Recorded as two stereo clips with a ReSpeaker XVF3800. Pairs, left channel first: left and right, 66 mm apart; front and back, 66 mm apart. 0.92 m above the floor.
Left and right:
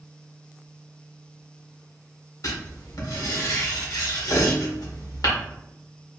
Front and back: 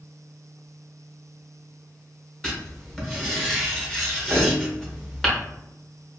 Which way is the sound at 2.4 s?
80° left.